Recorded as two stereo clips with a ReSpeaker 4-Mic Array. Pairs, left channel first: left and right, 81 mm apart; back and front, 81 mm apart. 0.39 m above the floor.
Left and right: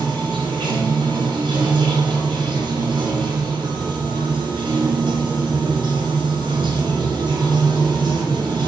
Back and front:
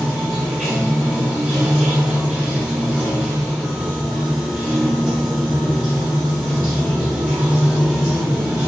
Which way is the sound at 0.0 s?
80° right.